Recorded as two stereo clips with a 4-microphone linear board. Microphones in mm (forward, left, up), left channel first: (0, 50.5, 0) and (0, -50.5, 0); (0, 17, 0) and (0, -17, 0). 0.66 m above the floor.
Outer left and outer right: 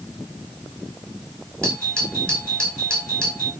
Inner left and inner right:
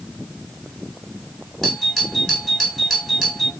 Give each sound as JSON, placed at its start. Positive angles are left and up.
{"t": 1.6, "sound": "a doorbell", "side_deg": 10, "distance_m": 6.5}